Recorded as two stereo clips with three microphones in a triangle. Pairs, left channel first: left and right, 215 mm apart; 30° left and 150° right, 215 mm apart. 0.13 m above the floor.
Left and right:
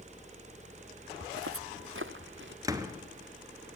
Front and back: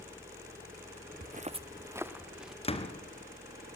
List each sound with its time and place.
1.2 s footsteps: 105° right, 0.6 m; by 2.5 s 60° right, 1.4 m
2.6 s a door slam: 20° right, 1.6 m